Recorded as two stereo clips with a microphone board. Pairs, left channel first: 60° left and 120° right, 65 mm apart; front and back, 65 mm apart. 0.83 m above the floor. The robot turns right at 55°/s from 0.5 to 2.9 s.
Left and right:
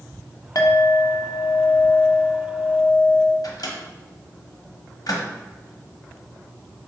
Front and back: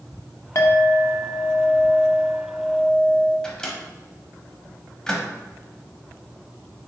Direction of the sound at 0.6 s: 35° left.